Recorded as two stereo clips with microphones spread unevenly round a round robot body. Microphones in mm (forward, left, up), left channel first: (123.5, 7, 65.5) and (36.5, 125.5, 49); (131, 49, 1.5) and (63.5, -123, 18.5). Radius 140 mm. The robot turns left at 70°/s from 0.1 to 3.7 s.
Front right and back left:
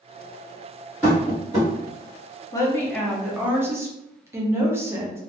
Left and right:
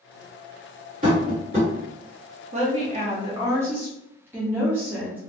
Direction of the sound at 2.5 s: 110° right.